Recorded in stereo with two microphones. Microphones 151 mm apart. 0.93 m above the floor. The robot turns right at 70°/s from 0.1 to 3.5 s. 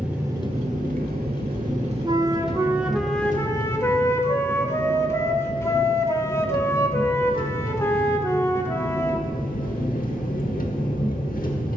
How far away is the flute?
About 0.7 m.